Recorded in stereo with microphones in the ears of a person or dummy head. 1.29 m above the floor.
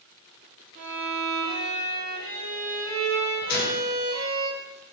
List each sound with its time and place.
0.8 s a violin: 65° right (ahead or behind), 1.4 m
3.5 s a gunshot: 55° left (ahead or behind), 0.7 m